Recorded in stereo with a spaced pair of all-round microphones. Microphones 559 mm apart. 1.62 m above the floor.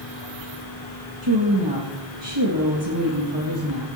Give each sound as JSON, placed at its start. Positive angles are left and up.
{"t": 1.2, "sound": "a woman speaking", "side_deg": -50, "distance_m": 2.0}